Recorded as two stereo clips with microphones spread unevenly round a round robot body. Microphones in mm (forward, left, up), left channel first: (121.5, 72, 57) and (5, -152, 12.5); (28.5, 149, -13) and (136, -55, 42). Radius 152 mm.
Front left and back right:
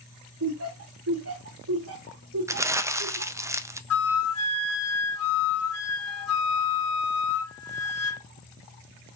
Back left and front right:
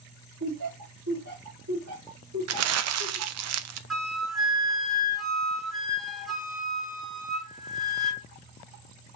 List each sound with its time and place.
0.4 s laughter: 105° right, 1.9 m
2.5 s crumpling: 40° right, 0.5 m
3.9 s a flute: 35° left, 1.2 m